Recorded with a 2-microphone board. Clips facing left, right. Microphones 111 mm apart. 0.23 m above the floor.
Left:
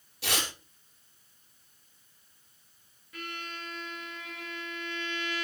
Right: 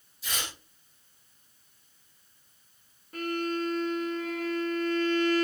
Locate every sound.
0.2 s tearing paper: 80° left, 4 m
3.1 s a violin: 45° right (ahead or behind), 1.8 m